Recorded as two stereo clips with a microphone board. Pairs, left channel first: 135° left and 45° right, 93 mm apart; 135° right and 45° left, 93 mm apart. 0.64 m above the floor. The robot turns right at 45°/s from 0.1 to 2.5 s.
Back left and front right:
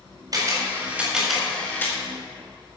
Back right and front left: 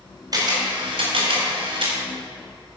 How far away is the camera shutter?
About 4 m.